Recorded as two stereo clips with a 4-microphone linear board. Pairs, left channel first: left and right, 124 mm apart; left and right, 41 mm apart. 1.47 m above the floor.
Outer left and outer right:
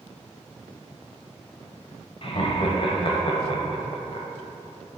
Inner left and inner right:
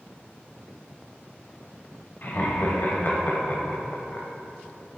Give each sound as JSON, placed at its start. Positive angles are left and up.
{"t": 2.2, "sound": "laughter", "side_deg": 45, "distance_m": 1.2}